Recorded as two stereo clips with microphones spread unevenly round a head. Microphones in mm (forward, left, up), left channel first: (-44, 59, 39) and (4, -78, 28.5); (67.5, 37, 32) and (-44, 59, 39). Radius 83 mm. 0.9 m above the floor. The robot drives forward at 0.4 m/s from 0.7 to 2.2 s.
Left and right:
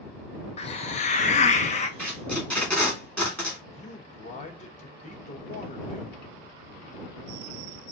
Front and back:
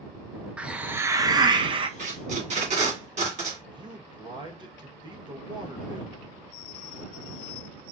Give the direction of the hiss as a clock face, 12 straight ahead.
9 o'clock.